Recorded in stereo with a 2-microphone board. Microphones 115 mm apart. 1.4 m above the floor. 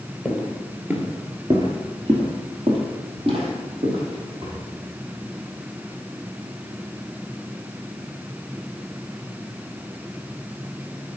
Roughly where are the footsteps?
Centre.